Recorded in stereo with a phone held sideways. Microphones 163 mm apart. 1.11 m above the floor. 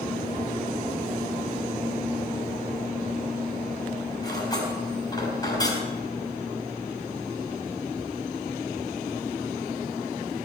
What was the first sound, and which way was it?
Cutlery clinking, 25° left (ahead or behind).